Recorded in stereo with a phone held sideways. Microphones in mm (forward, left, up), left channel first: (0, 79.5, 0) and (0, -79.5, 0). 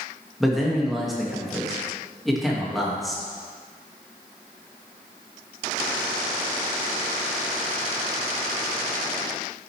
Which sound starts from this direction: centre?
A man speaking, at 0.4 s.